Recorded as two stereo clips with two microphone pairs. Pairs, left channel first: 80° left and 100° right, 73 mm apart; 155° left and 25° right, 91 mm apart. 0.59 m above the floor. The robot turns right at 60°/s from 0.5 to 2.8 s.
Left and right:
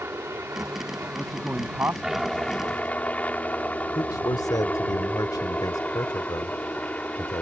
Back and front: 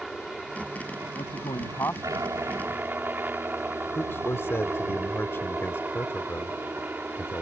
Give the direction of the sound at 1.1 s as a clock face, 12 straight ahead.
6 o'clock.